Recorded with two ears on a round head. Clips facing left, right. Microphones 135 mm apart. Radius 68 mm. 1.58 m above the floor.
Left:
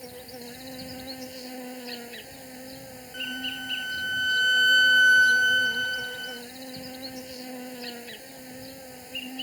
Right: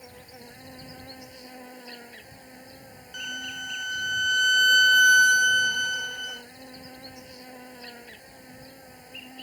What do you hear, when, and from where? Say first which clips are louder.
0.0 s an insect: left 6 dB; 35° left (ahead or behind)
3.1 s a violin: left 3 dB; 45° right (ahead or behind)